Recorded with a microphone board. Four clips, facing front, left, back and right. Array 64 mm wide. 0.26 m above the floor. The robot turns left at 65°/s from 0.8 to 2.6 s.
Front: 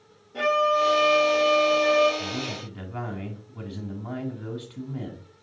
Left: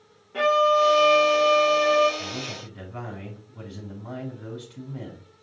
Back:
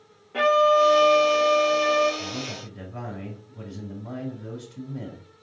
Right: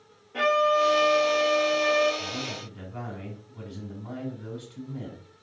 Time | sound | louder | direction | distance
0.3 | a violin | left 3 dB, back 4 dB | 175° left | 3.5 m
2.2 | a man speaking | even, front 2 dB | 40° left | 3 m